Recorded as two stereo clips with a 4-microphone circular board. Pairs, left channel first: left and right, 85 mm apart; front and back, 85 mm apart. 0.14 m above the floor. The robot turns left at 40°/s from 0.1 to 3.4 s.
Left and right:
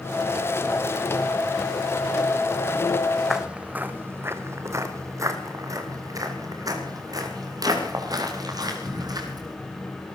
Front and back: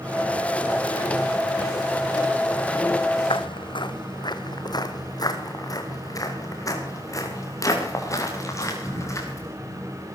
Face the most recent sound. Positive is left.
turn(degrees=-55)